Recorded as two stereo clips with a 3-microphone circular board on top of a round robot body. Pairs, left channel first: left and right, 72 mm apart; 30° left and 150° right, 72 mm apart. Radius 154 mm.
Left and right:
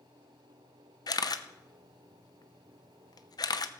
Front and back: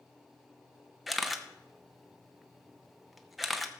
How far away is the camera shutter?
About 0.7 m.